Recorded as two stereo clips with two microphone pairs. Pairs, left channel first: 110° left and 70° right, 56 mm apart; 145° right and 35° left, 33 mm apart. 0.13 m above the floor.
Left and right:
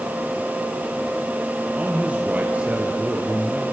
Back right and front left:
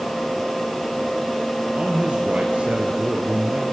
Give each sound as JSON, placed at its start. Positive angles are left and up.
{"t": 1.8, "sound": "a man speaking", "azimuth_deg": -5, "distance_m": 2.5}